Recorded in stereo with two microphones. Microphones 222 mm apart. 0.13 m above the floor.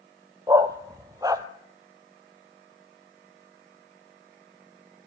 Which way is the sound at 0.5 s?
15° right (ahead or behind).